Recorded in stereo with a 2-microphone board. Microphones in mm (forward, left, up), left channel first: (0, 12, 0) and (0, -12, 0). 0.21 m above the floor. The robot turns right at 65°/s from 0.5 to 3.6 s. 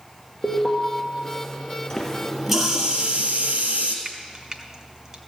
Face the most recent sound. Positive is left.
turn(degrees=-25)  # may be behind; listen again after turning